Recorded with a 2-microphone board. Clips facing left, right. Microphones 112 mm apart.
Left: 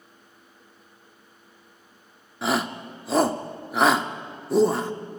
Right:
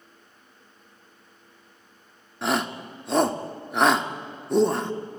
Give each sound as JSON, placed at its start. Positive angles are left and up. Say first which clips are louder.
{"t": 2.4, "sound": "a shout", "louder": "even", "side_deg": 0, "distance_m": 1.0}